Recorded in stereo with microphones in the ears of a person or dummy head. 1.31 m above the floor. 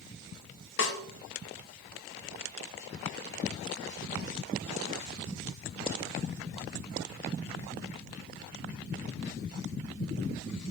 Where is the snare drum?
65° left (ahead or behind), 1.0 m.